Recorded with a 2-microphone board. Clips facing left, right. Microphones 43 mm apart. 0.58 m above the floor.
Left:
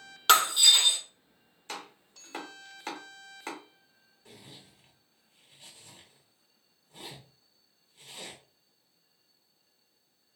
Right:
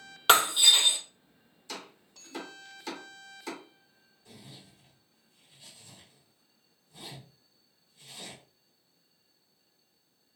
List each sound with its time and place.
0.3 s breaking glass: 5° right (ahead or behind), 1.1 m
1.7 s chopping: 45° left (ahead or behind), 1.5 m
4.2 s a zipper: 50° left (ahead or behind), 1.0 m